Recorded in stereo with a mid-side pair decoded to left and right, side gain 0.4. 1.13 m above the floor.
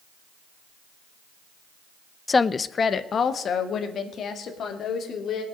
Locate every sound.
2.3 s a woman speaking: 25° left, 0.6 m; by 5.4 s 70° left, 3 m